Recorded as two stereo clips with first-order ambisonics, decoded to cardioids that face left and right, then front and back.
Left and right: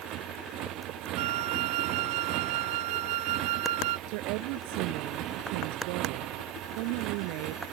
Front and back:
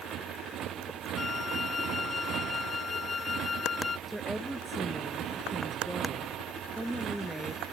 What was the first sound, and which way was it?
A motorcycle, 130° right.